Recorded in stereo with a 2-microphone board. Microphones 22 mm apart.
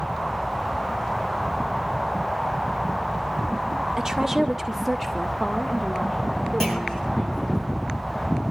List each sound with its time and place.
4.0 s a woman speaking: 30° right (ahead or behind), 1.1 m; by 7.6 s 40° left (ahead or behind), 3 m
6.6 s a clunk: 20° left (ahead or behind), 9.5 m